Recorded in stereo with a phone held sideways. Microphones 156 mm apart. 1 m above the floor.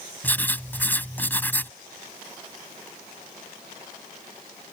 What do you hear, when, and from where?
0.2 s writing: 10° left (ahead or behind)